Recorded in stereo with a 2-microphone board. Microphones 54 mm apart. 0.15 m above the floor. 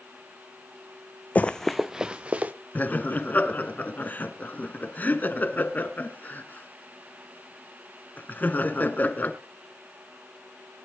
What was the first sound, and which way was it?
Running footsteps, 30° left (ahead or behind).